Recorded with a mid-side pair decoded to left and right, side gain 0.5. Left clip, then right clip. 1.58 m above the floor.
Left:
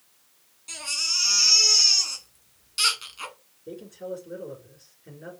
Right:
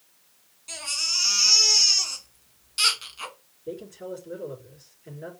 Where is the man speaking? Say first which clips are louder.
Even; 15° right, 3.5 m.